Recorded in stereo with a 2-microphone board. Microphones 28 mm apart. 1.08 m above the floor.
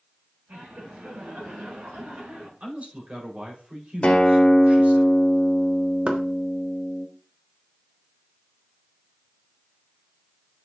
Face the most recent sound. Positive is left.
turn(degrees=-40)  # may be behind; listen again after turning